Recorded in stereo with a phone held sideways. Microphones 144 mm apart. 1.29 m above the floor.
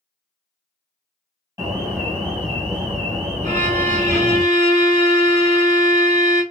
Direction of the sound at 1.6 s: 25° right (ahead or behind).